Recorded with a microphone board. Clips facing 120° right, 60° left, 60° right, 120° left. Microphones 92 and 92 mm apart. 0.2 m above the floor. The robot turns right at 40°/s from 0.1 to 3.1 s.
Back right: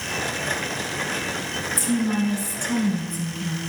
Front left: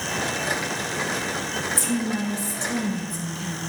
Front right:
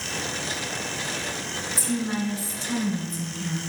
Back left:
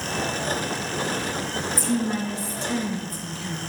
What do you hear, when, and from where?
1.8 s a woman speaking: 145° right, 2 m; by 3.6 s 90° right, 2 m